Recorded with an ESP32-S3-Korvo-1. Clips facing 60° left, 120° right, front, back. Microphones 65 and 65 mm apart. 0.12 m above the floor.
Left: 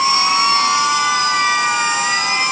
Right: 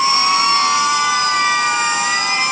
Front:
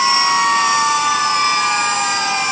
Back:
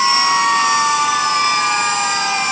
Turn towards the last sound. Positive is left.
No sound to turn to.